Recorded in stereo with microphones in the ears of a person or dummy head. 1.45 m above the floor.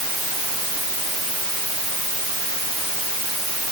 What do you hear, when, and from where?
Only background noise.